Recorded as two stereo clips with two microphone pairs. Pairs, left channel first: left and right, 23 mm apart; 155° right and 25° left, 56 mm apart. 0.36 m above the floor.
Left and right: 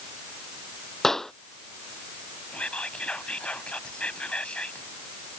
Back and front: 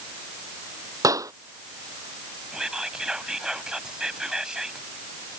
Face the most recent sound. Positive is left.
turn(degrees=100)